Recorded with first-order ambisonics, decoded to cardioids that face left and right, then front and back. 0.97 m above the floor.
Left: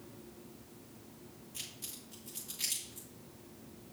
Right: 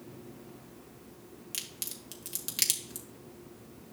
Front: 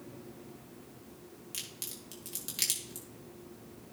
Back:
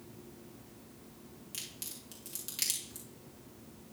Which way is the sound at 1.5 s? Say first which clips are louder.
Right 6 dB, front 2 dB; 80° right.